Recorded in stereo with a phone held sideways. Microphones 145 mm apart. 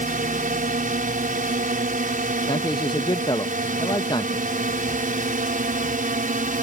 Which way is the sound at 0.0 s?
65° right (ahead or behind).